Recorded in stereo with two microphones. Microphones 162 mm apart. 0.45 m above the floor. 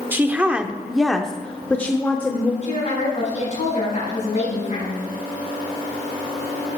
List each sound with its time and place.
0.1 s a woman speaking: 15° right (ahead or behind), 0.8 m; by 2.5 s 15° left (ahead or behind), 1.1 m
2.6 s a woman speaking: 45° left (ahead or behind), 5 m